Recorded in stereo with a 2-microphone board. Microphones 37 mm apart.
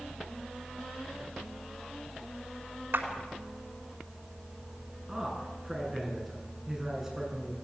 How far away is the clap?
About 3.5 m.